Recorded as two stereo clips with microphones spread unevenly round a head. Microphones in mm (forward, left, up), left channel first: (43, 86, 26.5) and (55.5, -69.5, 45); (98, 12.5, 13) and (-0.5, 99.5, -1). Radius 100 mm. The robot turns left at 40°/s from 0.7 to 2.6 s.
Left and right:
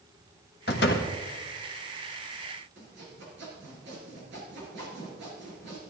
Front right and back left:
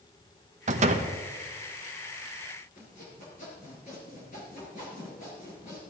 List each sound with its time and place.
0.7 s a door slam: 125° left, 1.2 m; by 1.1 s 110° left, 1.2 m
2.8 s sawing: 90° right, 5 m